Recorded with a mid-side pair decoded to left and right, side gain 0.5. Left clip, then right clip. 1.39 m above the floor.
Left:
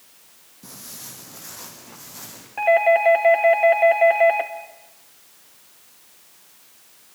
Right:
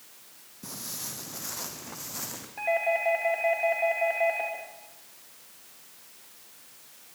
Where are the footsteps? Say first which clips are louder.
Right 2 dB; 20° right, 4.5 m; by 2.5 s 35° right, 5.5 m.